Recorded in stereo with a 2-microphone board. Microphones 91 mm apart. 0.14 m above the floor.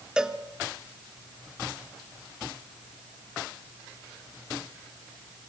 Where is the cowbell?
10° right (ahead or behind), 1.0 m.